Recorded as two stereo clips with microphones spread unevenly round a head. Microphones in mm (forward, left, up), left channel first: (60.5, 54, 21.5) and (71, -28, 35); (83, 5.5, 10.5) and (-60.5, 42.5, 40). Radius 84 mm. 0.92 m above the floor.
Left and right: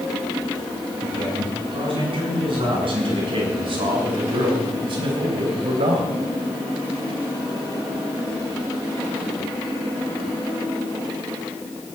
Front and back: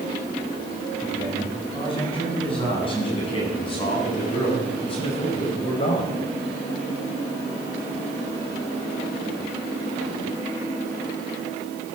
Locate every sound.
1.0 s a man speaking: 75° right, 8 m